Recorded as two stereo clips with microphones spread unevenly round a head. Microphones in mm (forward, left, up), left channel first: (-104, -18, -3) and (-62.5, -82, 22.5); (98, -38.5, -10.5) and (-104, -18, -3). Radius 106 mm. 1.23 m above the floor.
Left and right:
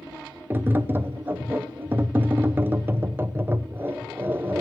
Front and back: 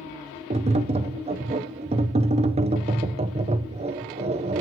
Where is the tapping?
130° right, 0.9 m.